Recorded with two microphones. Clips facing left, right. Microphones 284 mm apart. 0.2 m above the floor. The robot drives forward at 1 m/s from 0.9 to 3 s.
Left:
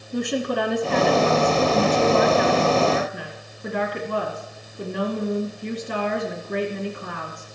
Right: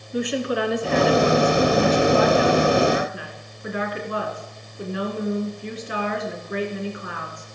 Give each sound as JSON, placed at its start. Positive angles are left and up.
{"t": 0.1, "sound": "a woman speaking", "side_deg": 50, "distance_m": 2.5}